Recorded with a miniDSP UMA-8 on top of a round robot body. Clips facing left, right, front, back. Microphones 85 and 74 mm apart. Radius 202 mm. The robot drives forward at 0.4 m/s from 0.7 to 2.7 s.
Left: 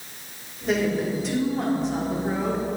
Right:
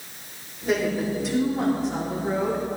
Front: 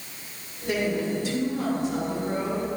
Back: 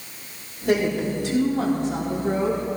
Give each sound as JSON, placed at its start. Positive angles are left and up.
{"t": 0.7, "sound": "a woman speaking", "azimuth_deg": 180, "distance_m": 5.0}